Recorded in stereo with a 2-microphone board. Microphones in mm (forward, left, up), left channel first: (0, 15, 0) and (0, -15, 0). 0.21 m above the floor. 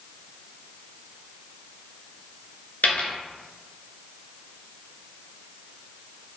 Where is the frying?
I don't hear frying.